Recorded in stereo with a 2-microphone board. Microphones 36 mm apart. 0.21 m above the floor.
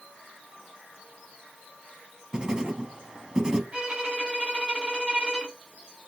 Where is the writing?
20° right (ahead or behind), 0.6 m.